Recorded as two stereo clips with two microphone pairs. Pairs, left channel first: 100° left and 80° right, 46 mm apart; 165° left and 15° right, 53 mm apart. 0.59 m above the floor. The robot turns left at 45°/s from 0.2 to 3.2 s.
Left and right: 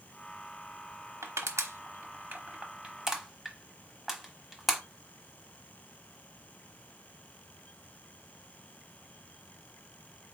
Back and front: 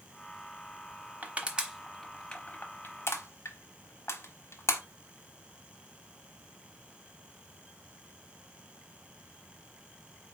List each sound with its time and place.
1.2 s crushing: 75° right, 1.0 m; by 4.8 s 160° right, 1.0 m